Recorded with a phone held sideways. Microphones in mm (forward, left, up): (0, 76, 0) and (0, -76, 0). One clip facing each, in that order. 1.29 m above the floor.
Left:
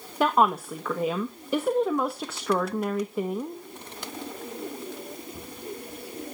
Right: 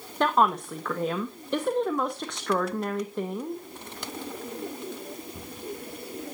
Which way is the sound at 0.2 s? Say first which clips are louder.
Left 1 dB; 5° left (ahead or behind).